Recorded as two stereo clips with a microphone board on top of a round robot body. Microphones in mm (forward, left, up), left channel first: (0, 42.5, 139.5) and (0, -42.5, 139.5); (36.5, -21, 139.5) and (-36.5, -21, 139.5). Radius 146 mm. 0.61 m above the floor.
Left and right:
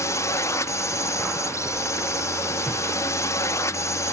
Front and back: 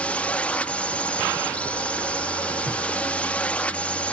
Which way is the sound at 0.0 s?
65° left.